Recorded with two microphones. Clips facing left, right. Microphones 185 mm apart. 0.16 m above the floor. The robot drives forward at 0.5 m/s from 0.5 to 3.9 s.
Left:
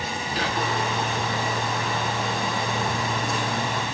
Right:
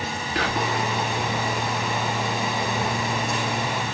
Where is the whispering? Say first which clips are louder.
Right 2 dB; 70° right (ahead or behind), 3 m.